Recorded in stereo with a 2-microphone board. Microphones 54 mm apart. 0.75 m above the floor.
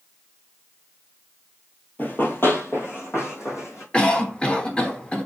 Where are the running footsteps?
30° left (ahead or behind), 1.0 m; by 3.8 s 55° left (ahead or behind), 2.5 m.